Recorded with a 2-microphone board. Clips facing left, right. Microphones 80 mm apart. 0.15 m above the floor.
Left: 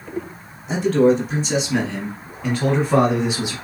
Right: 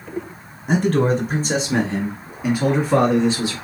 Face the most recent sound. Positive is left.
turn(degrees=20)  # may be behind; listen again after turning